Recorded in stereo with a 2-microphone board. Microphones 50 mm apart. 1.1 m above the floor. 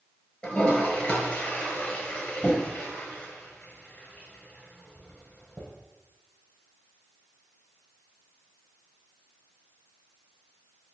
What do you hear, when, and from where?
0.4 s a toilet flushing: 15° left (ahead or behind), 5 m